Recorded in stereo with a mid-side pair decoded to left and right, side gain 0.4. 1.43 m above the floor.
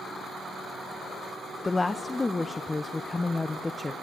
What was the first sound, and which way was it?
A woman speaking, 25° left.